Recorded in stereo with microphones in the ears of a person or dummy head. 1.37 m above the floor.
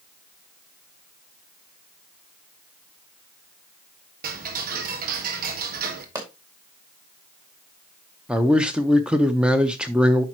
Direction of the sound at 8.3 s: 5° right (ahead or behind).